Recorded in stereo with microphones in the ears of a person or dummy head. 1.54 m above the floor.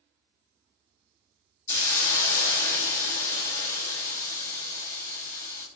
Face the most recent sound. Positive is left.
turn(degrees=15)  # may be behind; listen again after turning